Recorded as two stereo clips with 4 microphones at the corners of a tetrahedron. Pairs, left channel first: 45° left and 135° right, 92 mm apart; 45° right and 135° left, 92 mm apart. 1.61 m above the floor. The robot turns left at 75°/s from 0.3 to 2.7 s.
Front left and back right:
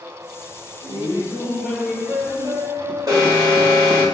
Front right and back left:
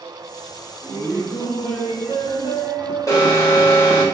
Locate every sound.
0.8 s laughter: 25° left, 1.6 m; by 4.1 s 115° right, 1.6 m
3.1 s an alarm: 95° right, 1.7 m